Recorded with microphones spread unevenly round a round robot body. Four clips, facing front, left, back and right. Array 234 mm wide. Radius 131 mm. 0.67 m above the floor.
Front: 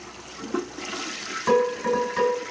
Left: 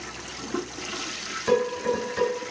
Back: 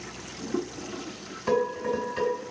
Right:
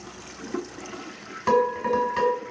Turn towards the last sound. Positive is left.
turn(degrees=-50)